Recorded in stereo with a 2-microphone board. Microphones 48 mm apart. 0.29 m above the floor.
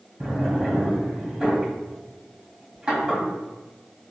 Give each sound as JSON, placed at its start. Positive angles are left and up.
{"t": 0.2, "sound": "a drawer", "side_deg": -15, "distance_m": 1.1}